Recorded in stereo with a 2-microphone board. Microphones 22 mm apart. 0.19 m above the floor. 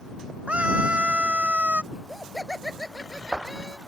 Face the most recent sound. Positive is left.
turn(degrees=0)  # may be behind; listen again after turning